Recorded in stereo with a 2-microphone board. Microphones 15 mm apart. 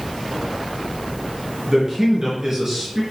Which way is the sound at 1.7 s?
35° right (ahead or behind).